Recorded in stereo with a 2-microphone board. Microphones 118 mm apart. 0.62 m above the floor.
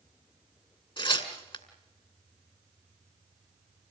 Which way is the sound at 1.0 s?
50° left (ahead or behind).